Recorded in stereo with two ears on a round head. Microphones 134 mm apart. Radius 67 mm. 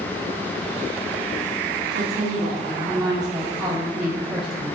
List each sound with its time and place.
1.9 s a woman speaking: 25° right (ahead or behind), 1.2 m; by 4.7 s 5° right (ahead or behind), 1.2 m